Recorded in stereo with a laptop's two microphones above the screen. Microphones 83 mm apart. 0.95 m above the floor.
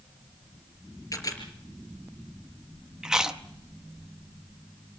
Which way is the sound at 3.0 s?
10° right (ahead or behind).